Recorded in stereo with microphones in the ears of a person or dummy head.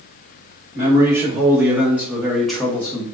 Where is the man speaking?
20° right (ahead or behind), 1.5 m; by 3.0 s 15° left (ahead or behind), 0.5 m.